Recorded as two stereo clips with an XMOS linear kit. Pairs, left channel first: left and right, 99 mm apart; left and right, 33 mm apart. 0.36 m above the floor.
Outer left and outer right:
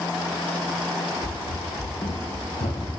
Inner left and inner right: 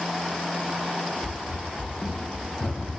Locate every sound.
1.2 s running footsteps: 40° left (ahead or behind), 0.5 m; by 2.9 s 70° left (ahead or behind), 1.2 m